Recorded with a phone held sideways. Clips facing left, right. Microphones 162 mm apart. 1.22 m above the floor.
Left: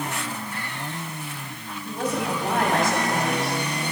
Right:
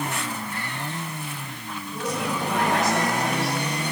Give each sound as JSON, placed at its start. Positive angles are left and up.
{"t": 1.9, "sound": "a woman speaking", "side_deg": 50, "distance_m": 9.0}